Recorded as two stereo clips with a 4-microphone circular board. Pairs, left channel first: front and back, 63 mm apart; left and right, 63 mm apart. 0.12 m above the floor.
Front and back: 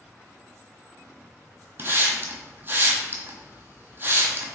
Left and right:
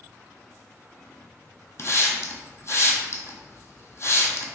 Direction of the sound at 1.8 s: 130° left.